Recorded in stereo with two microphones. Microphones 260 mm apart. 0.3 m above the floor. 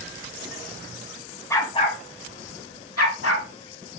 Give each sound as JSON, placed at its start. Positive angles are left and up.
{"t": 1.5, "sound": "a dog barking", "side_deg": 10, "distance_m": 0.7}